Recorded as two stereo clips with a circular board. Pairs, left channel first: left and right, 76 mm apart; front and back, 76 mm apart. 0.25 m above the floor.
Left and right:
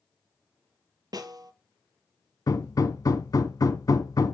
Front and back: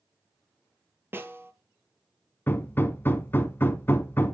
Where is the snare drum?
120° right, 0.8 m.